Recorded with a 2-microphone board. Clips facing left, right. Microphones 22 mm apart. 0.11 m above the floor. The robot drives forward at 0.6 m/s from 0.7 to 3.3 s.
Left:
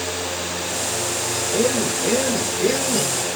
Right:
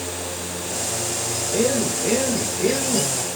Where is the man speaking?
Centre (ahead or behind), 3.5 m.